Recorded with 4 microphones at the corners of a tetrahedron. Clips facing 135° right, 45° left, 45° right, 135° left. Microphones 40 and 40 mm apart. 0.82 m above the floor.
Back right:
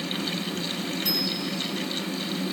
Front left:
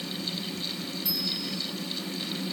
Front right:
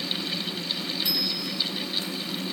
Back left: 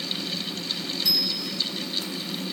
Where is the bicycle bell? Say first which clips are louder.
Back right 2 dB, back left 1 dB; 105° right, 9 m.